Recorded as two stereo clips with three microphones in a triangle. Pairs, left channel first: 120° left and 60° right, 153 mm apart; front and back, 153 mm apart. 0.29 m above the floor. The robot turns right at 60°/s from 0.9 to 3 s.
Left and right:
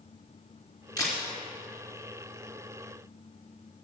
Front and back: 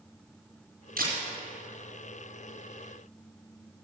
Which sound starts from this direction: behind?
A camera shutter, at 1.0 s.